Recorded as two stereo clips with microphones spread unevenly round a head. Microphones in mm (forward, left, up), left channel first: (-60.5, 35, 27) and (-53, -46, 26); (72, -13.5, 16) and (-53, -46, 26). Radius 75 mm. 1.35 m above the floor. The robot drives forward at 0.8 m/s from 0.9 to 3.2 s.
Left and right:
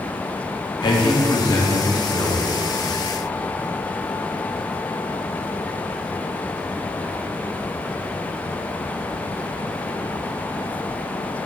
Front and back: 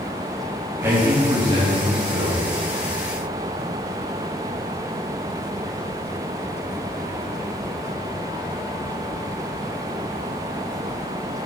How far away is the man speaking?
About 1.5 m.